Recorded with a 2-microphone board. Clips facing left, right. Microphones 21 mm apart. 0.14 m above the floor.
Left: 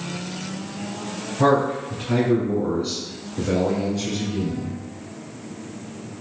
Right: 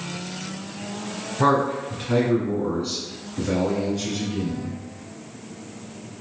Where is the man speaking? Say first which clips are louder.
Left 1 dB; 15° right (ahead or behind), 1.3 m; by 4.8 s 15° left (ahead or behind), 2 m.